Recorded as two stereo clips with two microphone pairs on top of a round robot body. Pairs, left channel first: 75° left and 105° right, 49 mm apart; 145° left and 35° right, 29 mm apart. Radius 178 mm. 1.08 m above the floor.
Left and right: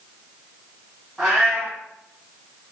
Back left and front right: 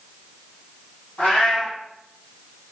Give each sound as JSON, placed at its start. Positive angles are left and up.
{"t": 1.2, "sound": "a cat meowing", "azimuth_deg": 165, "distance_m": 1.8}